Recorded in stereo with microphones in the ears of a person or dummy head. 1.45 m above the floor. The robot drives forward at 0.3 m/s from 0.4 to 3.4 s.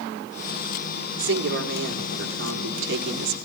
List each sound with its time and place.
1.2 s a woman speaking: 65° right (ahead or behind), 4.5 m; by 3.4 s 75° right (ahead or behind), 4.5 m